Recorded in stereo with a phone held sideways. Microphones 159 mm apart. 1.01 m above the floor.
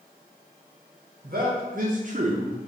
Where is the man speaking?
70° right (ahead or behind), 1.1 m; by 2.6 s 35° right (ahead or behind), 0.5 m.